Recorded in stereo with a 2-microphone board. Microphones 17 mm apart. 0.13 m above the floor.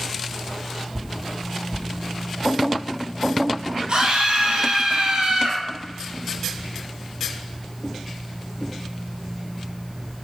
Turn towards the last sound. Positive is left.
turn(degrees=-70)  # may be behind; listen again after turning